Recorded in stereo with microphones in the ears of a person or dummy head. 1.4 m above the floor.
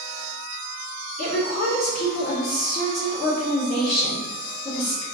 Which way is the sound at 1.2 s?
45° left (ahead or behind).